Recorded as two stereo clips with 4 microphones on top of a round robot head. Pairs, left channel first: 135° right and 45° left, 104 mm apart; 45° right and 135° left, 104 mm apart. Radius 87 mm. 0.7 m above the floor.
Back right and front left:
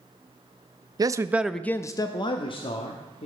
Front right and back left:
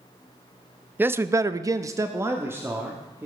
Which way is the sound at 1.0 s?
75° left.